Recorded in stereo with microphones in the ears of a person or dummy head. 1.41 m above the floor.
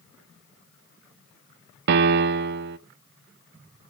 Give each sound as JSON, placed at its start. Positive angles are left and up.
{"t": 1.9, "sound": "a piano", "side_deg": -60, "distance_m": 0.7}